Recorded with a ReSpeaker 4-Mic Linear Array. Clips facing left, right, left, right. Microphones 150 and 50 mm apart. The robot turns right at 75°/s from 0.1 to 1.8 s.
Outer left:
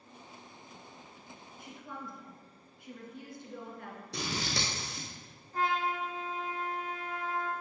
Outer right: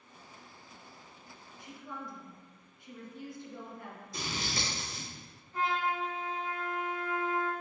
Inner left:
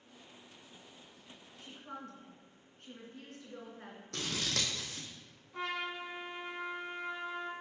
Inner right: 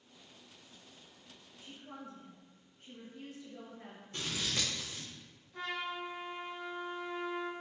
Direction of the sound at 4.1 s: 85° left.